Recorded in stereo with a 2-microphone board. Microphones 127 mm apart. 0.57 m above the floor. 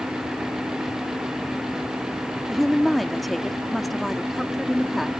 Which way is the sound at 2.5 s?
Centre (ahead or behind).